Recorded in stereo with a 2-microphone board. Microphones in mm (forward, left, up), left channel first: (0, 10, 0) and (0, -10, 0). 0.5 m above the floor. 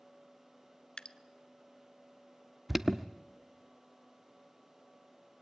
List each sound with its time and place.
1.0 s dripping: 55° left (ahead or behind), 0.8 m
2.7 s an alarm: 10° right (ahead or behind), 0.8 m